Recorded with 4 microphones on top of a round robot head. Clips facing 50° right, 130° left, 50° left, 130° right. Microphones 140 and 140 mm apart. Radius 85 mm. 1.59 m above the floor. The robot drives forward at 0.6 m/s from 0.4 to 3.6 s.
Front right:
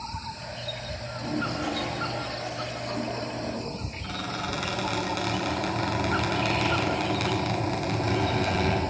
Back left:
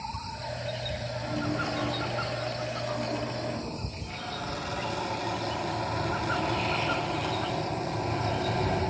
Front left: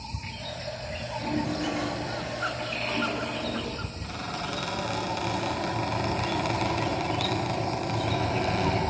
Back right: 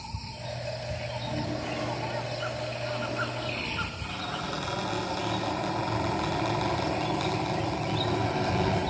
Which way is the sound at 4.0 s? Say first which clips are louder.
Front right 5 dB, front left 2 dB; 30° right.